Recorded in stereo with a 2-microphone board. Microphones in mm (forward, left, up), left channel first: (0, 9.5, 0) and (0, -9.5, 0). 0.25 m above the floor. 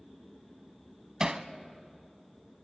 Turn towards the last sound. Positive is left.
turn(degrees=-35)  # may be behind; listen again after turning